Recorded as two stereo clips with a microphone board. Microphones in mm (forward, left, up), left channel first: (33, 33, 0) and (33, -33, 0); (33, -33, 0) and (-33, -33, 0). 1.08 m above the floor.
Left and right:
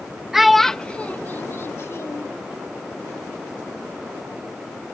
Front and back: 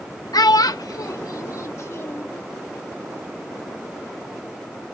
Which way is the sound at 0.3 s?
5° right.